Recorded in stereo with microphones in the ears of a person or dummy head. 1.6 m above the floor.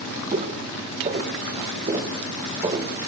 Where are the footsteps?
35° right (ahead or behind), 5.5 m; by 2.9 s 20° right (ahead or behind), 3.5 m.